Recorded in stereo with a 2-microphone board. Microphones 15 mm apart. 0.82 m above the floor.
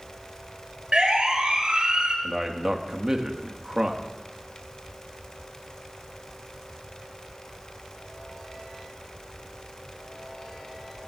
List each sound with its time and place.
0.9 s a siren: 50° right (ahead or behind), 5.5 m; by 2.1 s 65° right (ahead or behind), 5 m
2.2 s a man speaking: 35° right (ahead or behind), 1.6 m